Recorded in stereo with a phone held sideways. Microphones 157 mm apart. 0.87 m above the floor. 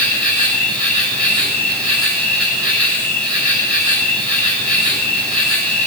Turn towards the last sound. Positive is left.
turn(degrees=5)  # may be behind; listen again after turning